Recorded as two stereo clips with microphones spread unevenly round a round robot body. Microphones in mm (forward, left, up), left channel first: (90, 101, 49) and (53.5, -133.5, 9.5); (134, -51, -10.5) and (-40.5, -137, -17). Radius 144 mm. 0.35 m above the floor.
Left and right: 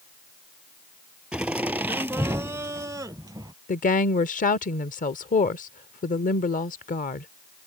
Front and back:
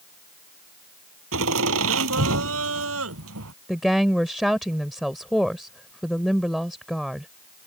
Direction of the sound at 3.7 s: 120° left.